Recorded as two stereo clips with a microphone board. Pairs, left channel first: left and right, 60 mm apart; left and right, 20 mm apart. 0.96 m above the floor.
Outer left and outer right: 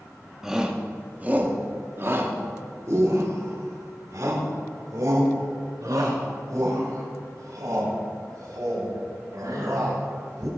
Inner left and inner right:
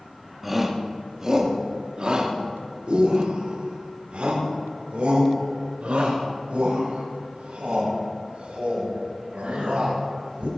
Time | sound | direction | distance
0.4 | a shout | 5° right (ahead or behind) | 1.6 m